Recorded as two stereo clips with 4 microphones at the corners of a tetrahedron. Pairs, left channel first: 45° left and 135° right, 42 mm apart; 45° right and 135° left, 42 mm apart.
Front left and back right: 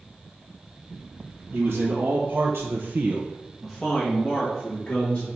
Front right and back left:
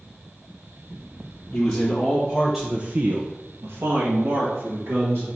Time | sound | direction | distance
1.5 | a man speaking | 110° right | 2.5 m